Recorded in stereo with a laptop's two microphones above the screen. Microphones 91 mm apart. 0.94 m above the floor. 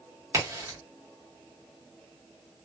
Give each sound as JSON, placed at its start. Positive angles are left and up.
{"t": 0.3, "sound": "a crack", "side_deg": -35, "distance_m": 1.2}